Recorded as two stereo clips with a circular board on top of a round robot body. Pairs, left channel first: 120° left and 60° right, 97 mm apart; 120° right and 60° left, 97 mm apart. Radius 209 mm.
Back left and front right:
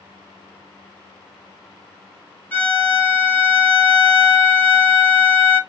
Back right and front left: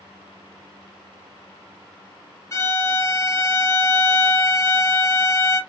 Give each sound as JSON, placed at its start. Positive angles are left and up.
{"t": 2.5, "sound": "a violin", "azimuth_deg": -170, "distance_m": 1.3}